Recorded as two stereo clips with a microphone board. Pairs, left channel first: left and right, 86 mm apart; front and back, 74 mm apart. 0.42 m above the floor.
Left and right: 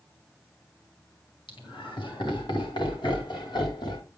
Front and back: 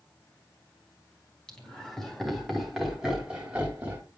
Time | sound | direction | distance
1.5 | laughter | 80° left | 4 m